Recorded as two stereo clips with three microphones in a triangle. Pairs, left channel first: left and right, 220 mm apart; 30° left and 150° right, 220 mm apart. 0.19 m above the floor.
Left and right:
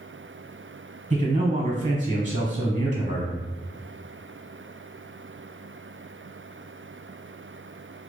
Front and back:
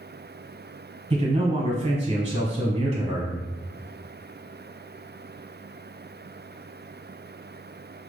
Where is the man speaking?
110° right, 1.1 m.